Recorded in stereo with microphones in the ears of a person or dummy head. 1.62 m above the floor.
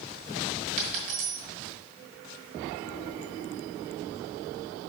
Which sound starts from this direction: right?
A dropped coin, at 0.8 s.